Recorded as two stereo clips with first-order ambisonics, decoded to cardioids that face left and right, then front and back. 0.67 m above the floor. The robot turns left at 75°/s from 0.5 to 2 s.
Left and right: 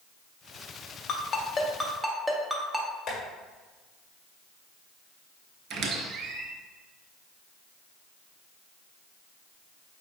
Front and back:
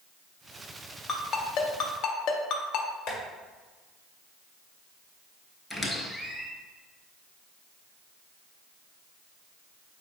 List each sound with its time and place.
1.1 s a ringtone: 60° left, 0.7 m; by 2.9 s 5° right, 0.7 m
3.1 s tapping: 35° left, 1.8 m
5.7 s a squeak: 80° right, 0.7 m